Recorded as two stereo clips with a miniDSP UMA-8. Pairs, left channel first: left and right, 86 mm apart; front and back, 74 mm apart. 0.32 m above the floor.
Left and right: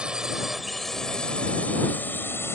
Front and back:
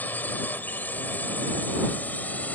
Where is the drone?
25° right; by 2.6 s 55° left.